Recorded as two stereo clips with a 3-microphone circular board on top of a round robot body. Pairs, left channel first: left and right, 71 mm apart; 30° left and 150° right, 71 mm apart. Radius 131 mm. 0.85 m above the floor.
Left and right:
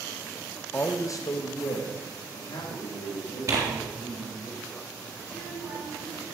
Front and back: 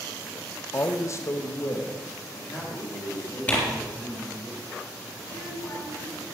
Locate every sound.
0.7 s a man speaking: 50° left, 0.9 m; by 4.5 s 90° left, 4.5 m
3.5 s tearing paper: 35° right, 3.5 m
5.2 s a child speaking: 15° left, 6.5 m